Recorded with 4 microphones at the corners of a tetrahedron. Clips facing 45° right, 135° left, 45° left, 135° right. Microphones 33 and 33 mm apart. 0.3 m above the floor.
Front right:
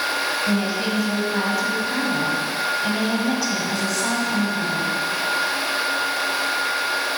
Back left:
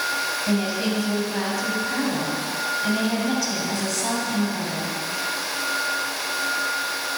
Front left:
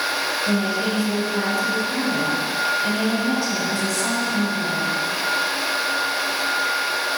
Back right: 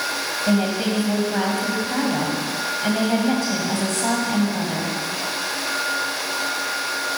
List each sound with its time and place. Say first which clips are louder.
0.5 s a woman speaking: front right 1 dB, back right 4 dB; 130° right, 1.9 m